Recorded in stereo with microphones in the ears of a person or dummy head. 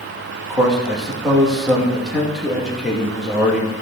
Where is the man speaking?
Centre (ahead or behind), 3 m.